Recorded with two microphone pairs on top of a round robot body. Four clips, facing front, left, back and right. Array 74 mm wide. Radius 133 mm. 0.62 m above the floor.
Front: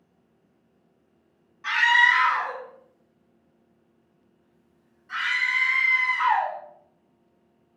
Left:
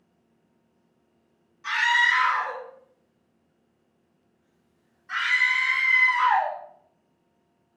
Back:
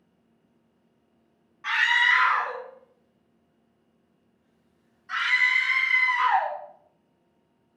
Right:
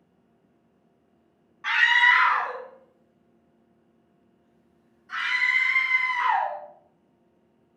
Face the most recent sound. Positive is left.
turn(degrees=145)